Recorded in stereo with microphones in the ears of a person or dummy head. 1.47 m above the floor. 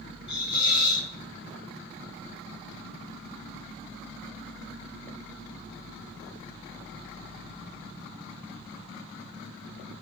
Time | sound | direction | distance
0.3 | a hiss | 30° left (ahead or behind) | 4.5 m